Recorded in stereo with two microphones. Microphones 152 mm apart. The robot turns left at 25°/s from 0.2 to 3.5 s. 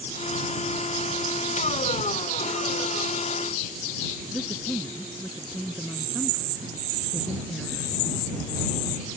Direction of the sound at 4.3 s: 5° right (ahead or behind).